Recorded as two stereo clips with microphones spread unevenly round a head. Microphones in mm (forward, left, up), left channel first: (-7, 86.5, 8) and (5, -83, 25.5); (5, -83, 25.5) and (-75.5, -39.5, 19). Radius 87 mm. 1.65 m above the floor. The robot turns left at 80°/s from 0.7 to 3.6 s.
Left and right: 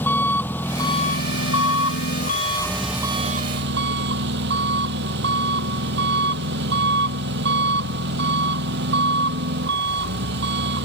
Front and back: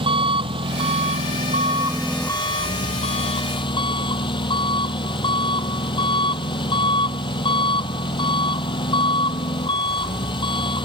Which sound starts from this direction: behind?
An engine running, at 0.0 s.